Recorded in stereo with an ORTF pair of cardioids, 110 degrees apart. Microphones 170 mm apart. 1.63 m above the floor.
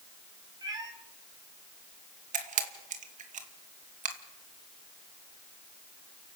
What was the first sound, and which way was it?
A cat meowing, 25° right.